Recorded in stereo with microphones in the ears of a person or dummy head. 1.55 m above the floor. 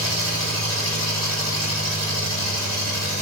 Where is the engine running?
Centre (ahead or behind), 4.5 m.